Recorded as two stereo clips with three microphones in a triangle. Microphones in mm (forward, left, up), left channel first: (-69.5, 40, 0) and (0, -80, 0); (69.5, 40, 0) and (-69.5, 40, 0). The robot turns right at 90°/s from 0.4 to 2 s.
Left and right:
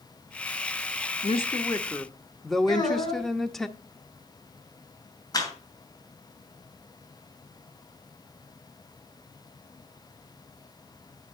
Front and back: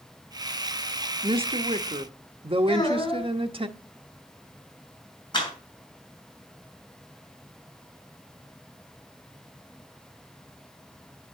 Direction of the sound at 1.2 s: 135° left.